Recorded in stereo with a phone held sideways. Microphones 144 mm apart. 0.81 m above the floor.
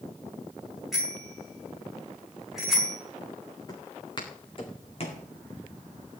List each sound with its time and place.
0.9 s a bicycle bell: centre (ahead or behind), 6 m
3.7 s footsteps: 30° left (ahead or behind), 3.5 m; by 5.2 s 50° left (ahead or behind), 3 m